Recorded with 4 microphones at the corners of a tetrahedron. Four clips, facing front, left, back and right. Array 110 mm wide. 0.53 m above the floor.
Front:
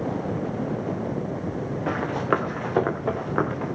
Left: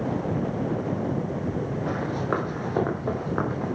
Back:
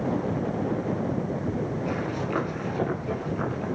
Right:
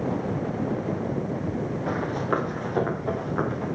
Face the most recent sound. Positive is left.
turn(degrees=20)